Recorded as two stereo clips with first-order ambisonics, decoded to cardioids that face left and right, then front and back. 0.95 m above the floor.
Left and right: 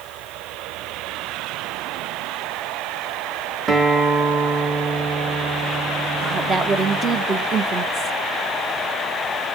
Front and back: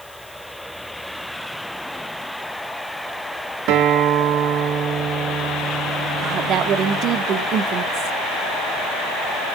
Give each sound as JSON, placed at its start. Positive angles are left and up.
{"t": 3.7, "sound": "a guitar", "azimuth_deg": -160, "distance_m": 1.5}
{"t": 6.2, "sound": "a woman speaking", "azimuth_deg": -150, "distance_m": 1.0}